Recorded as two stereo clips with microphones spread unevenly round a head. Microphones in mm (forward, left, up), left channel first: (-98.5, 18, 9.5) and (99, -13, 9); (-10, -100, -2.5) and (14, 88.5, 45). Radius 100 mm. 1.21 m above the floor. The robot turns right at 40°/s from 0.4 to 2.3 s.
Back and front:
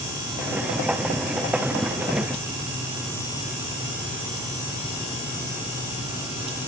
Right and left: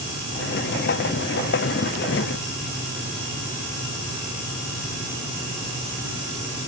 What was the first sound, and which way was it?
Only background noise.